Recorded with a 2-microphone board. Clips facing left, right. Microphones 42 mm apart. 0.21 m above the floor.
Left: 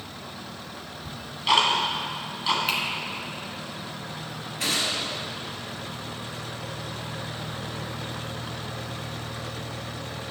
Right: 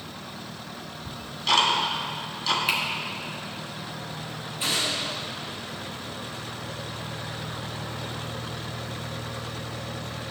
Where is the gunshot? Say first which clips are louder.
Even; 70° left (ahead or behind), 3.5 m.